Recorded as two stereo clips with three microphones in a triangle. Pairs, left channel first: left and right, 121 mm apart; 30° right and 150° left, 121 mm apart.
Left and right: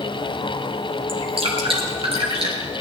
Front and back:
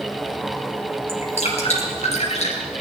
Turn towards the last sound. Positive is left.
turn(degrees=-50)